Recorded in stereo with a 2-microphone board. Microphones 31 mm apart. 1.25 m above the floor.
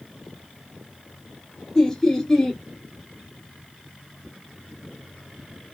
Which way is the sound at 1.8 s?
15° left (ahead or behind).